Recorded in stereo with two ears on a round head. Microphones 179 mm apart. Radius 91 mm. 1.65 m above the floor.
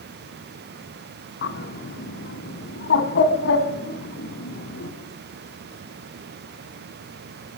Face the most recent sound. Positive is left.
turn(degrees=55)  # may be behind; listen again after turning